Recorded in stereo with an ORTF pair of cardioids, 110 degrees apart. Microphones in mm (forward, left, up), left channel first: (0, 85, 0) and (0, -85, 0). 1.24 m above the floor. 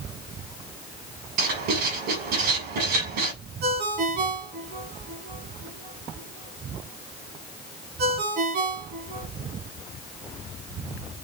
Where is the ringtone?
65° right, 7 m.